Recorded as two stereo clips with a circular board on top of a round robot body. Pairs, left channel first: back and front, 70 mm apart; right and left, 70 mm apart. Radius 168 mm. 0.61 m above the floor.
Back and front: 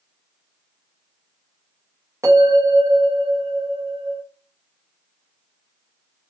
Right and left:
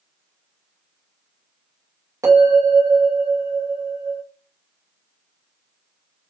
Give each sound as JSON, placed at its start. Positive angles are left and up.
{"t": 2.2, "sound": "a bell", "azimuth_deg": 50, "distance_m": 2.5}